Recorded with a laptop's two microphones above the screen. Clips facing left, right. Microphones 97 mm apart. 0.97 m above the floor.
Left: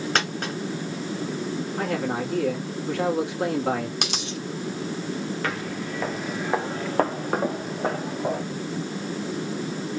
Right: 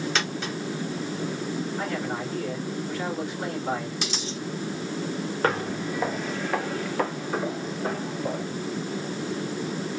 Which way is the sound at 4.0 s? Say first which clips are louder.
Left 1 dB; 65° left (ahead or behind).